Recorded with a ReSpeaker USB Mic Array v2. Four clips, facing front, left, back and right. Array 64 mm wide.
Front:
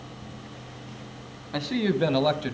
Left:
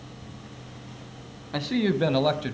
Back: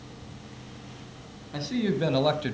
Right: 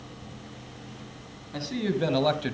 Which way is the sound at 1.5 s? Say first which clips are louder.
Left 4 dB, front 2 dB; 50° left.